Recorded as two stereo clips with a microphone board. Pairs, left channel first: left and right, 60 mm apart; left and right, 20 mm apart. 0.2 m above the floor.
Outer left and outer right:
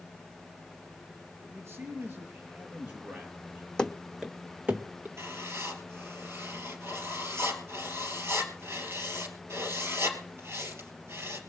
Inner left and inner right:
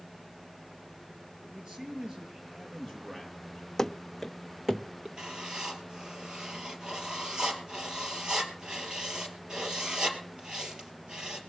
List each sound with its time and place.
1.4 s a man speaking: 45° right (ahead or behind), 4 m; by 3.7 s 15° right (ahead or behind), 4 m
3.8 s running footsteps: 15° left (ahead or behind), 0.6 m; by 5.1 s 35° right (ahead or behind), 1.2 m
5.2 s writing: 45° right (ahead or behind), 3 m